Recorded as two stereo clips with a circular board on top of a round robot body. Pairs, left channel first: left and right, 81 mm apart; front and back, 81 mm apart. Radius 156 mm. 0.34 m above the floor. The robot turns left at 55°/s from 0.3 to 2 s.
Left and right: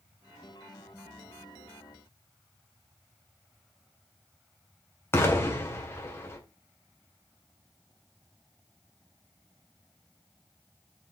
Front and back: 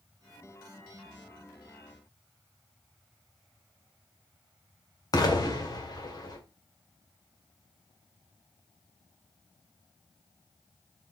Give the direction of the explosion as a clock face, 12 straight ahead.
11 o'clock.